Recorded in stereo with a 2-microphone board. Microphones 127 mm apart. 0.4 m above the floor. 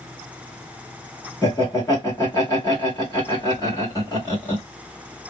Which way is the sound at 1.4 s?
25° left (ahead or behind).